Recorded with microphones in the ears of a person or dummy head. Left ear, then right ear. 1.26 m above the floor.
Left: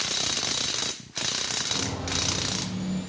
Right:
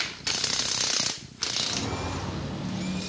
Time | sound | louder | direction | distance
1.6 | footsteps | left 1 dB | 70° right (ahead or behind) | 7 m